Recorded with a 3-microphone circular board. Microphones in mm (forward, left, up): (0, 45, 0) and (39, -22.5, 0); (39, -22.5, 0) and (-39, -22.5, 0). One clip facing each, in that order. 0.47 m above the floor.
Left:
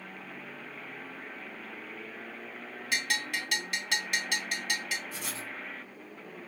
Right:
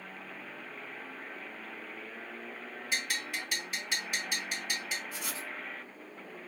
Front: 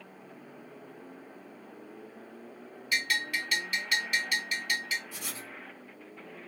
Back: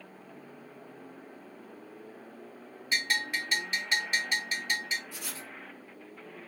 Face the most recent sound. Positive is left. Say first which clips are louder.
# left 1 dB, even
turn(degrees=70)